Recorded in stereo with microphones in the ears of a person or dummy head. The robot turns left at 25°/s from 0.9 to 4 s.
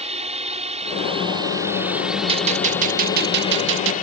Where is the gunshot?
30° right; by 3.9 s 70° right.